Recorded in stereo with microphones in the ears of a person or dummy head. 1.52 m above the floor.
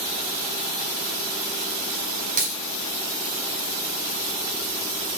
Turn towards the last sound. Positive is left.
turn(degrees=-40)  # may be behind; listen again after turning